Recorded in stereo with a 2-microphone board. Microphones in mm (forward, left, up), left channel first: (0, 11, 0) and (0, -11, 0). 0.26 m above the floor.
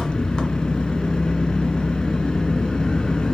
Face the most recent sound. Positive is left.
turn(degrees=35)  # may be behind; listen again after turning